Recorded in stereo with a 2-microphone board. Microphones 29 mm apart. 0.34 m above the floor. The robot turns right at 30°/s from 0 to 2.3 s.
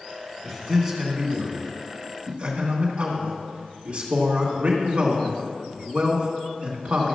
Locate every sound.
0.4 s a man speaking: 170° left, 3 m; by 7.2 s 135° right, 3 m